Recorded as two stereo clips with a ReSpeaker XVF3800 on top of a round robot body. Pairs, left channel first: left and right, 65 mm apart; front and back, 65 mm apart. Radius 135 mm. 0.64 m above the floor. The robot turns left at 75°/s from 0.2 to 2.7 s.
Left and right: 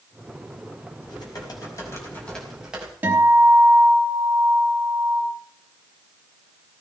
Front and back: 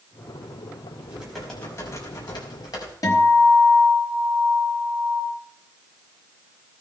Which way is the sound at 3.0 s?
30° right.